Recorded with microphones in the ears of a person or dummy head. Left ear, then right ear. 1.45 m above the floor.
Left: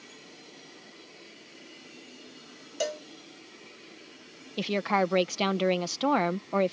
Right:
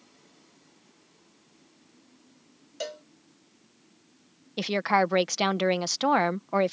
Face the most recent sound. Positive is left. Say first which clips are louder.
# right 3 dB
turn(degrees=-25)  # may be behind; listen again after turning